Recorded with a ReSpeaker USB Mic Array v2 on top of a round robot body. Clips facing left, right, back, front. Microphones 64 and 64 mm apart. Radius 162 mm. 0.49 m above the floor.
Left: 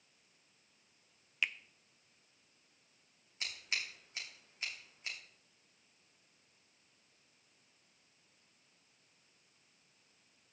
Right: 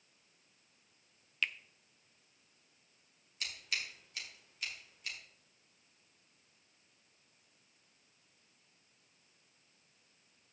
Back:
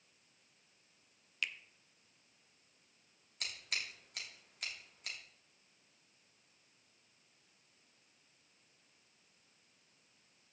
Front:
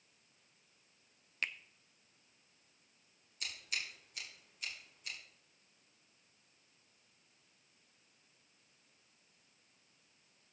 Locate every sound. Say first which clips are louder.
1.4 s a finger snap: even, front 1 dB; 20° left, 0.7 m
3.4 s scissors: even, even; 150° left, 3 m